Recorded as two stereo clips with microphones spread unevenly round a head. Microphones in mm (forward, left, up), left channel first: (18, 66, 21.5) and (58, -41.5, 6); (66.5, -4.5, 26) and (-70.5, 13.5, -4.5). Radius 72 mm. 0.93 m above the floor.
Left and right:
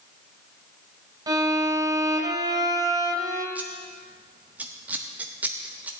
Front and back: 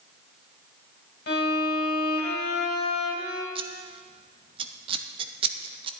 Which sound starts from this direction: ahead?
A violin, at 1.3 s.